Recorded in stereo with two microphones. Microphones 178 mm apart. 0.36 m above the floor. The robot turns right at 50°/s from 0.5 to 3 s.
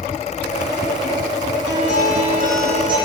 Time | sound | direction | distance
1.7 | a guitar | 90° right | 9 m